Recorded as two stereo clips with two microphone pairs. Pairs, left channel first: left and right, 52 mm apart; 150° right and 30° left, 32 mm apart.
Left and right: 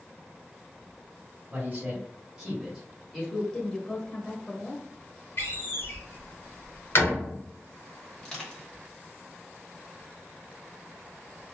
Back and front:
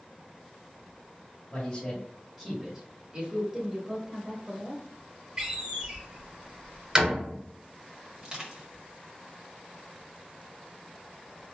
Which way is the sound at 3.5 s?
55° left.